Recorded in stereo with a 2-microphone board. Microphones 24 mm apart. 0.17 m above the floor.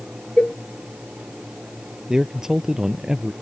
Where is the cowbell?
50° left (ahead or behind).